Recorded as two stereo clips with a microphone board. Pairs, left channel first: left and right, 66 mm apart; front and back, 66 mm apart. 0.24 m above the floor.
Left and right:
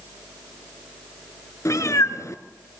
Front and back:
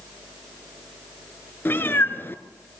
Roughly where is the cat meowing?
Ahead left.